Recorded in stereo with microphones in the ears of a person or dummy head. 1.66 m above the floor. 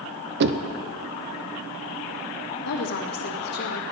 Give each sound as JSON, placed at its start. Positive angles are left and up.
{"t": 0.4, "sound": "knocking", "side_deg": -60, "distance_m": 0.7}
{"t": 2.6, "sound": "a woman speaking", "side_deg": 60, "distance_m": 2.0}